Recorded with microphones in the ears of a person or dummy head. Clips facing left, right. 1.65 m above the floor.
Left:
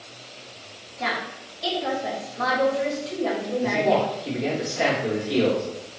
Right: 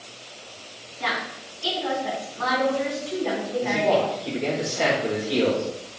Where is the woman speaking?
75° left (ahead or behind), 1.6 m.